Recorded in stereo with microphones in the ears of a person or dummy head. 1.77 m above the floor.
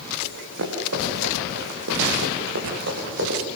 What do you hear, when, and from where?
0.2 s running footsteps: 70° right (ahead or behind), 5 m; by 3.4 s 55° right (ahead or behind), 5 m